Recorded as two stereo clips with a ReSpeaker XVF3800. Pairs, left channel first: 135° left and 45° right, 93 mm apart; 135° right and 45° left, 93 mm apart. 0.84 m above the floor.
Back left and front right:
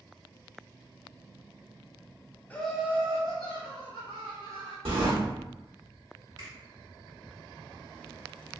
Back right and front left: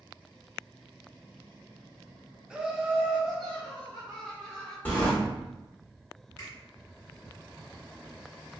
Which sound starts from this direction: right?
A finger snap, at 6.4 s.